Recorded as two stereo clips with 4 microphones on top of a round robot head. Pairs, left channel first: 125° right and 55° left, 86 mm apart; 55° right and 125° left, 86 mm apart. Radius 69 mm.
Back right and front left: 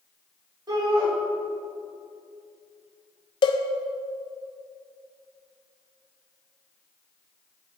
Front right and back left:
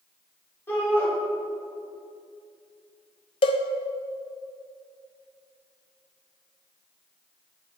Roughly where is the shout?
Ahead.